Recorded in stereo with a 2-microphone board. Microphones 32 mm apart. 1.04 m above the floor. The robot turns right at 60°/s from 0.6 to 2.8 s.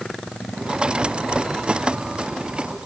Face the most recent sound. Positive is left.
No sound to turn to.